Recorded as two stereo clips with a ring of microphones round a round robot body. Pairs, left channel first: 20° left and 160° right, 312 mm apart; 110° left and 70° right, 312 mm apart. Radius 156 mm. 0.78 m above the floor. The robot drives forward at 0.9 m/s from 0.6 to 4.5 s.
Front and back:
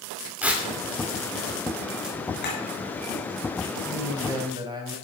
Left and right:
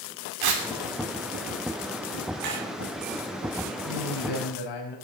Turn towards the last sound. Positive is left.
turn(degrees=125)